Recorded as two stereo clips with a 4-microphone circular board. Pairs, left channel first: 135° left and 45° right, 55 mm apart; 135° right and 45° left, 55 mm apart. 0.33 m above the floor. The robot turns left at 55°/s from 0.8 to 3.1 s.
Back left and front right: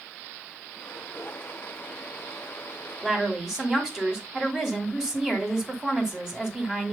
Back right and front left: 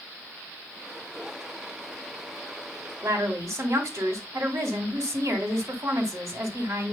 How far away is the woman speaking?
About 1.9 m.